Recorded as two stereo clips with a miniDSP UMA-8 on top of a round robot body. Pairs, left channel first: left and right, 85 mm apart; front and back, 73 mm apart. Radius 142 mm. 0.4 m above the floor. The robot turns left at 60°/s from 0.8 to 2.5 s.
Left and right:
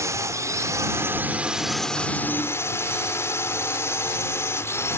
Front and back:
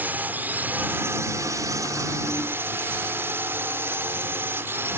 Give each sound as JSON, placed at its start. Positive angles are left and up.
{"t": 0.0, "sound": "a drone", "azimuth_deg": -125}